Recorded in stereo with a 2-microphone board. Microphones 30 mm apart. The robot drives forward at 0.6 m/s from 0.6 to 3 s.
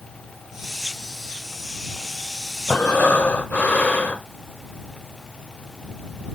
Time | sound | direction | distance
2.7 | breathing | 75° left (ahead or behind) | 0.5 m